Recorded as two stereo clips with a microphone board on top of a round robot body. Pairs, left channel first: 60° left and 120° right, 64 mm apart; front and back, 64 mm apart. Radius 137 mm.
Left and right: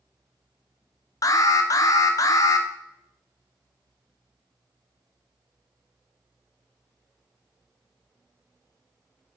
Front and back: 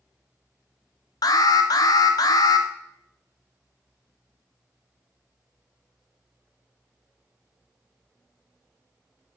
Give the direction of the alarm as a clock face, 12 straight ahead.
11 o'clock.